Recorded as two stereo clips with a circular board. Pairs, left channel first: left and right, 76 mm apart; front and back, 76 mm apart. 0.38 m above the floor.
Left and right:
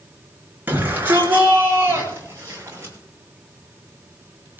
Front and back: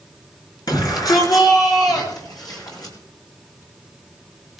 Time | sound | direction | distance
0.7 | a shout | 25° right | 5.5 m